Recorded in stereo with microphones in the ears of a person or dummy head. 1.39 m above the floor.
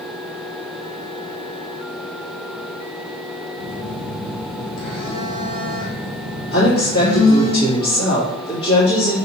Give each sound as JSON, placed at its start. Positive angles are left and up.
{"t": 3.6, "sound": "a phone buzzing", "side_deg": 65, "distance_m": 2.5}
{"t": 6.5, "sound": "a woman speaking", "side_deg": 70, "distance_m": 2.5}